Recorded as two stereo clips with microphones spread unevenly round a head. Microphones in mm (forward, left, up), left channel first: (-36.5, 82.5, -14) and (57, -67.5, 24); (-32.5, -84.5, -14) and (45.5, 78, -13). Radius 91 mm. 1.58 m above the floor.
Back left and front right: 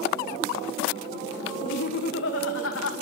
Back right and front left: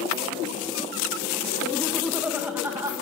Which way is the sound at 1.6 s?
165° left.